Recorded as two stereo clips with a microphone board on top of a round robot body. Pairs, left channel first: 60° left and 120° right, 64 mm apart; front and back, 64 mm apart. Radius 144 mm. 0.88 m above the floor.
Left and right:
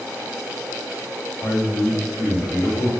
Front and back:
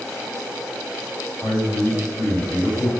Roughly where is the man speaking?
Behind left.